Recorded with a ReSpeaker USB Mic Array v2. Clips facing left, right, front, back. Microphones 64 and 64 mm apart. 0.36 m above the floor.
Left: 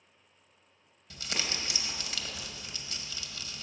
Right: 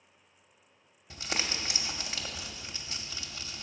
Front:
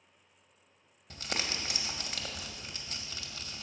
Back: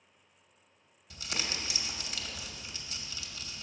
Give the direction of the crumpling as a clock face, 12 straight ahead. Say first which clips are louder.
Right 1 dB, front 1 dB; 1 o'clock.